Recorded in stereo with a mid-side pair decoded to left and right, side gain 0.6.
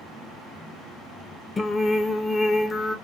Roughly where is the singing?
Ahead left.